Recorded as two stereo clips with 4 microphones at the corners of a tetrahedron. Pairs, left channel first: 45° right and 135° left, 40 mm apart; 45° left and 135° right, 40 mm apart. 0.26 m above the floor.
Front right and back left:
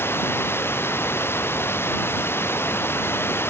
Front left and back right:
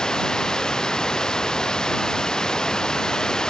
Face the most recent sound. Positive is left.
turn(degrees=-30)